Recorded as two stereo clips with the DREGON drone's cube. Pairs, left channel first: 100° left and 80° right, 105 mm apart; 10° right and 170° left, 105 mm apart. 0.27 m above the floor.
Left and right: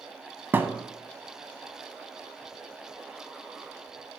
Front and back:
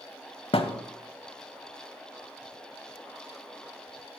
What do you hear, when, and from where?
0.5 s a thud: 15° right, 0.6 m